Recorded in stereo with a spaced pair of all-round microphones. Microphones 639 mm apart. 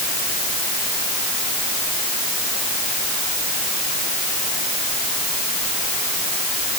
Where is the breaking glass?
No breaking glass in this recording.